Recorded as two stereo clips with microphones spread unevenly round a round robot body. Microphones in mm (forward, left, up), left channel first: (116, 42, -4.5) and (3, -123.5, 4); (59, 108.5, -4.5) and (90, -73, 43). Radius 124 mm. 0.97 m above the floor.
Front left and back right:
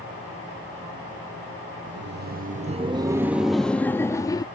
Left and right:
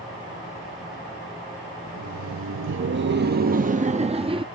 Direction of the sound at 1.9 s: 100° right.